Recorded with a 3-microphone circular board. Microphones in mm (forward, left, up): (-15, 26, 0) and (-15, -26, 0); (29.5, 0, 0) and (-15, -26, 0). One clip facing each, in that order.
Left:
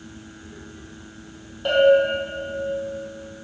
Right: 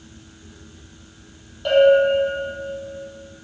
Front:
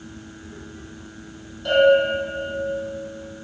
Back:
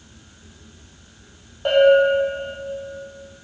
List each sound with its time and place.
1.6 s a bell: 170° left, 3.5 m